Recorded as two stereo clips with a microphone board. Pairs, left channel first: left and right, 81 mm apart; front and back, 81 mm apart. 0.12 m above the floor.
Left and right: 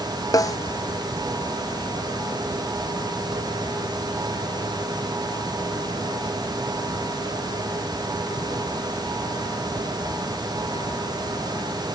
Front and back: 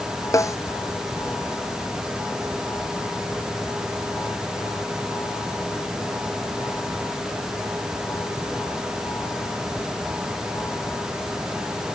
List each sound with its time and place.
0.3 s a snare drum: 50° left